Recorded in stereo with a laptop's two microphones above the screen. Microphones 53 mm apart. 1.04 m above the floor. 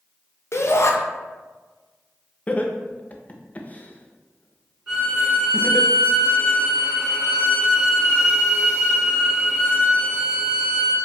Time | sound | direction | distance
0.5 | a shout | 60° left (ahead or behind) | 0.5 m
2.5 | laughter | 30° left (ahead or behind) | 0.6 m
4.9 | a violin | 15° right (ahead or behind) | 1.1 m